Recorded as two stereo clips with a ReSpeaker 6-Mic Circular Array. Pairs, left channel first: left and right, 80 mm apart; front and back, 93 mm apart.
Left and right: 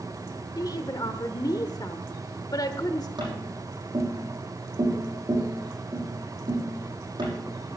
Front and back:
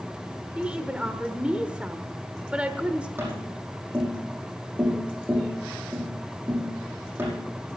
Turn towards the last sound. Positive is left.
turn(degrees=-110)